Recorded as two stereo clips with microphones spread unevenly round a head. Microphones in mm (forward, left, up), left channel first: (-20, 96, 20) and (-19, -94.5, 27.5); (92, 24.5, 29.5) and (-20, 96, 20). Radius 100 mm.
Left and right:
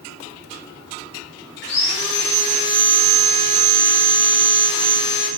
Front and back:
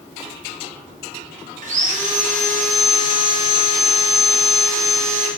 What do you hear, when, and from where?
1.6 s sawing: 120° left, 1.0 m